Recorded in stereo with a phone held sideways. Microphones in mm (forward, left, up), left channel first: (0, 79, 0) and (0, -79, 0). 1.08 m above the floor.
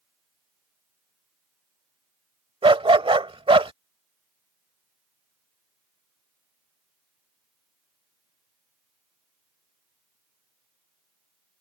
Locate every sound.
2.6 s a dog barking: 35° right (ahead or behind)